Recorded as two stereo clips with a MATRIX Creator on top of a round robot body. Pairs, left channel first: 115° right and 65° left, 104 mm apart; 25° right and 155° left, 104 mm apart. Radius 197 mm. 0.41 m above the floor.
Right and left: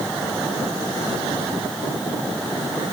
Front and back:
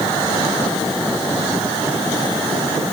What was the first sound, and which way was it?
Only background noise.